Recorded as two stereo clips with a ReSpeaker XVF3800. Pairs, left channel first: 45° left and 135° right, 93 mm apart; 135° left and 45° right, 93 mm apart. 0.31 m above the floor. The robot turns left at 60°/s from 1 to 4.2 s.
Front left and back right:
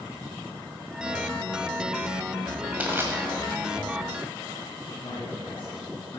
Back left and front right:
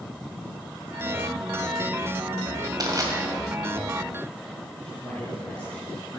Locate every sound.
2.8 s crushing: 65° right, 1.7 m; by 3.1 s 85° right, 1.7 m
4.8 s a man speaking: 60° left, 3 m